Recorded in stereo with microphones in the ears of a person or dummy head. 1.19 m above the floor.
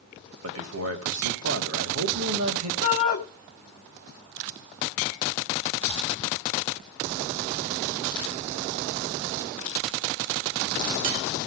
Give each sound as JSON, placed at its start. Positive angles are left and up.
{"t": 0.4, "sound": "a man speaking", "side_deg": -85, "distance_m": 2.5}
{"t": 2.8, "sound": "a shout", "side_deg": 40, "distance_m": 1.7}